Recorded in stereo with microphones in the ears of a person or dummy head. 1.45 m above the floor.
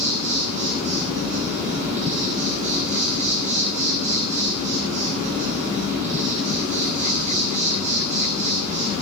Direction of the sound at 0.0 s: 35° right (ahead or behind).